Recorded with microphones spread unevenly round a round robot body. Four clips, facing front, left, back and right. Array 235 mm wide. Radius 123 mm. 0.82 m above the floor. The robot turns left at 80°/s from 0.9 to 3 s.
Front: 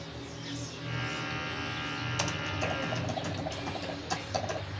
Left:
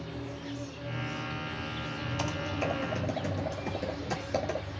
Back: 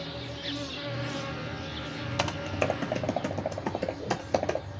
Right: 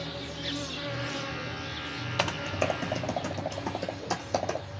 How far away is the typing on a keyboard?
About 1.3 m.